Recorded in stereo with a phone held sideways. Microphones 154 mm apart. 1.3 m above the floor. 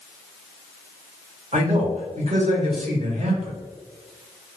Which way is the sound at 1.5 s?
45° right (ahead or behind).